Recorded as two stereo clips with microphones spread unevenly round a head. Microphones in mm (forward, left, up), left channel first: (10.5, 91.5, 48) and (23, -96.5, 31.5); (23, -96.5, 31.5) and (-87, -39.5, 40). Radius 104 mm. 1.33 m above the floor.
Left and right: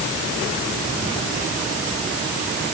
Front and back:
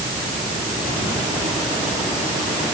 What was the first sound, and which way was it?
Only background noise.